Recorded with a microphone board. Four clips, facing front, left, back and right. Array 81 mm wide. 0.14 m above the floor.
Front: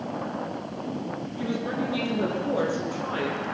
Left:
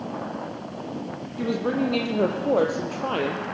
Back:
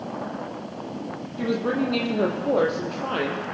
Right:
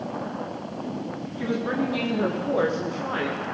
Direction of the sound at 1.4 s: 130° left.